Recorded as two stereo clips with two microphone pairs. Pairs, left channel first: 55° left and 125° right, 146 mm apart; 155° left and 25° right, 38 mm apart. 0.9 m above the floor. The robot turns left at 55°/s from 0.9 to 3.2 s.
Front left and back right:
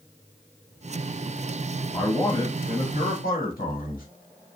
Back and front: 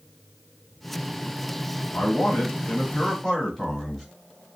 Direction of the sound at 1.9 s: 135° left.